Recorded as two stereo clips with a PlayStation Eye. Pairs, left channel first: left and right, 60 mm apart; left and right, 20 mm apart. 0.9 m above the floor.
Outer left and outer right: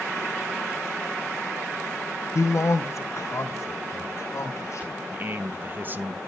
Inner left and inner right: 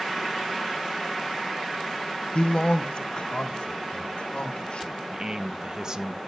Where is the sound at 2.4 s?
55° left (ahead or behind), 0.7 m; by 5.0 s 50° left (ahead or behind), 3.5 m.